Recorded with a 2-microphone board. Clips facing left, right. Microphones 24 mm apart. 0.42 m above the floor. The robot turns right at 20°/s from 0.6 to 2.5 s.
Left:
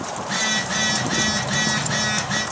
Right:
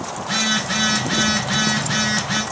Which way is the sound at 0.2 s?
105° right.